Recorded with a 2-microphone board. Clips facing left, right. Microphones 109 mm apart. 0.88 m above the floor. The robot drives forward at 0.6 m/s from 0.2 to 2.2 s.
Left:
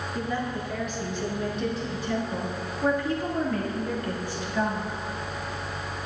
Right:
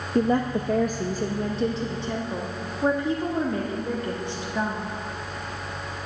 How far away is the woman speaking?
About 0.6 m.